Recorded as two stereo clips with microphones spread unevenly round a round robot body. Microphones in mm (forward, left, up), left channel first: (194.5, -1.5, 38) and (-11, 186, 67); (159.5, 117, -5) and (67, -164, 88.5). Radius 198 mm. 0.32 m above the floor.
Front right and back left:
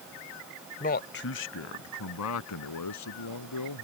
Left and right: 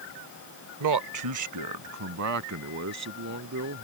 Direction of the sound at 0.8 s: 90° right.